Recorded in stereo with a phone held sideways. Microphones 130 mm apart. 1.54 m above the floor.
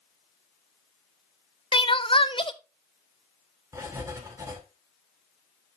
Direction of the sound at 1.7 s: 40° left (ahead or behind).